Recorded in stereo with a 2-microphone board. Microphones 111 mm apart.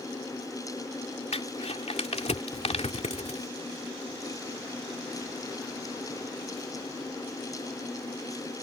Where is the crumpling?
70° left (ahead or behind).